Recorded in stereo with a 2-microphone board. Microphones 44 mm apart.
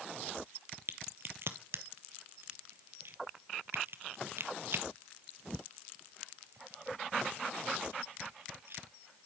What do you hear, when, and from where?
0.9 s a crack: 60° right (ahead or behind), 0.8 m